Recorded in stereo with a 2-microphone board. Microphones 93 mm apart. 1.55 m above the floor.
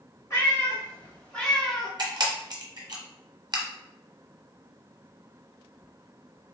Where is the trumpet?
I don't hear a trumpet.